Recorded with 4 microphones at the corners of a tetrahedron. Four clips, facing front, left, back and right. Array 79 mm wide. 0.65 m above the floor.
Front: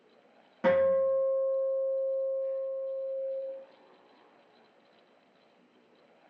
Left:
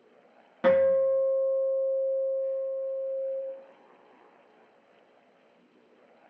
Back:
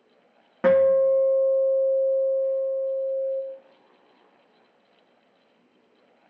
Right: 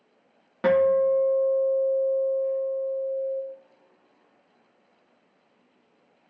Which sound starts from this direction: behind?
A guitar, at 0.6 s.